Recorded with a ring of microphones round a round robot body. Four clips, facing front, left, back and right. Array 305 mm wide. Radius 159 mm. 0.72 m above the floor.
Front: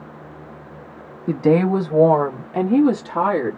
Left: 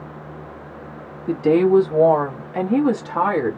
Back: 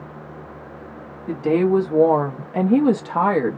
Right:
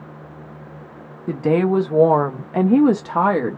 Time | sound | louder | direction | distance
1.3 | a woman speaking | left 3 dB, front 1 dB | 35° right | 1.2 m